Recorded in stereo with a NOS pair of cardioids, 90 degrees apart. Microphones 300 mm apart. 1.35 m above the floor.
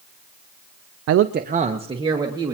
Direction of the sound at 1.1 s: 60° right.